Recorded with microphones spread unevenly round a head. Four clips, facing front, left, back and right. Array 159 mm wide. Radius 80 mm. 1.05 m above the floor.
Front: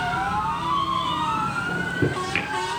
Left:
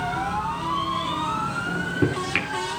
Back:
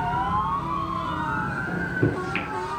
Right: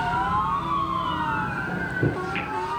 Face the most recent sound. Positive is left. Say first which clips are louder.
# left 2 dB, even
turn(degrees=65)